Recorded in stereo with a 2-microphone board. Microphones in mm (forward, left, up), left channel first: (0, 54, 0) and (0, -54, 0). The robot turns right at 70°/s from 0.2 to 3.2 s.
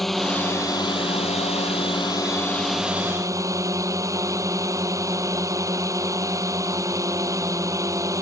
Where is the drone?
Straight ahead; by 8.2 s 150° right.